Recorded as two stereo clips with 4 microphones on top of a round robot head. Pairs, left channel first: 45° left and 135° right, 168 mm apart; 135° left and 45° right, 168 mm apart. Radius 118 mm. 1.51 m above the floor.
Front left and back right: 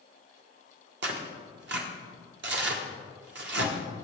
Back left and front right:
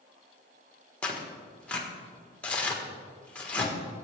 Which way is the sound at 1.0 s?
140° right.